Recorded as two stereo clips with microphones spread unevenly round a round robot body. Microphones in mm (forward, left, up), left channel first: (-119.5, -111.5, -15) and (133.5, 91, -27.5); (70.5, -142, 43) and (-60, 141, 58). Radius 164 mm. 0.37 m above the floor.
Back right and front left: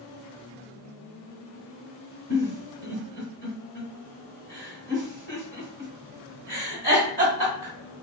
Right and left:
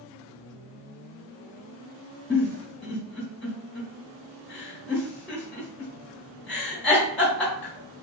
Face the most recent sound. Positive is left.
turn(degrees=15)